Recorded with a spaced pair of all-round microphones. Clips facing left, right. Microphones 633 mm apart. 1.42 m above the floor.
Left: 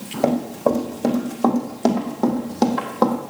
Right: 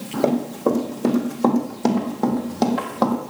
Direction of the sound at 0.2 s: 25° left (ahead or behind).